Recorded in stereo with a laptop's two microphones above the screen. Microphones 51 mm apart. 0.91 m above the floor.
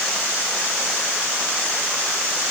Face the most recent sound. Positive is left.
No sound to turn to.